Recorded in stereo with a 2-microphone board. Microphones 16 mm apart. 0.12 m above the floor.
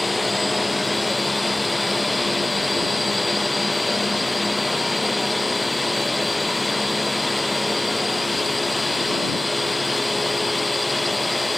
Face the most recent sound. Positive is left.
turn(degrees=0)  # may be behind; listen again after turning